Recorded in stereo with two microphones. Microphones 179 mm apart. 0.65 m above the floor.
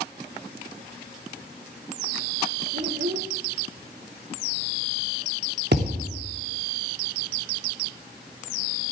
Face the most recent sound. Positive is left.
turn(degrees=-70)  # may be behind; listen again after turning